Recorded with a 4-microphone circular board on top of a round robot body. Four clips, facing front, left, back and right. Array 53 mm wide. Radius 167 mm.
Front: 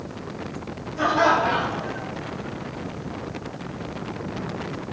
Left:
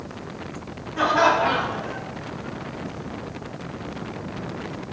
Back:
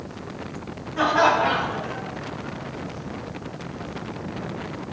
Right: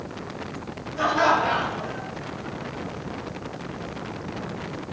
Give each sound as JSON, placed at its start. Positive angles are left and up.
{"t": 1.0, "sound": "laughter", "azimuth_deg": 140, "distance_m": 4.5}